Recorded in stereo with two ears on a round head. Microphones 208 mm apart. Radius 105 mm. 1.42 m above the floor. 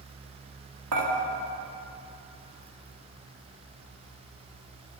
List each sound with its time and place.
0.9 s dishes clattering: 75° right (ahead or behind), 1.9 m